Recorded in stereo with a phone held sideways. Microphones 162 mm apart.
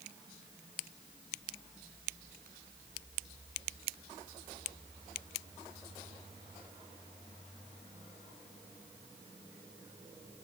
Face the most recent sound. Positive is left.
No sound to turn to.